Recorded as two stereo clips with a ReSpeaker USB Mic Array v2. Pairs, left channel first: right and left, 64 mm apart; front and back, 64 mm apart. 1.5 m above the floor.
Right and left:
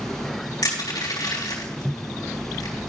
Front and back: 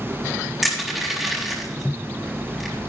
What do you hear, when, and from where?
0.6 s crushing: 95° right, 3.5 m